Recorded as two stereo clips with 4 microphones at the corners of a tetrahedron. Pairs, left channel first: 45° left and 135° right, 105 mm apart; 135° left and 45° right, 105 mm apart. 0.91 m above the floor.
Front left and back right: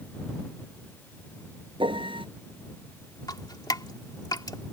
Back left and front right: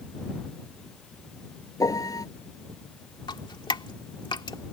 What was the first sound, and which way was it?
A piano, 170° right.